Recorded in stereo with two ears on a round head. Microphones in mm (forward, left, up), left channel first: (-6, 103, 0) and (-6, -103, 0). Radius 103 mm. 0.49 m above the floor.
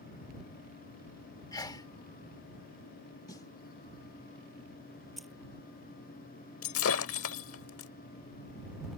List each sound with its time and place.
1.5 s a sneeze: 15° left (ahead or behind)
3.3 s a snare drum: 15° left (ahead or behind)
5.2 s keys jangling: centre (ahead or behind)
6.6 s breaking glass: 65° left (ahead or behind)